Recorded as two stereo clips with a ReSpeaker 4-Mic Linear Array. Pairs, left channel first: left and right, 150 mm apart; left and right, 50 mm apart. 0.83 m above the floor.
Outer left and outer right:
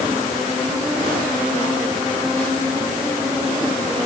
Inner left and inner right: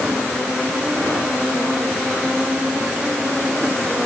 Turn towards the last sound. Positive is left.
No sound to turn to.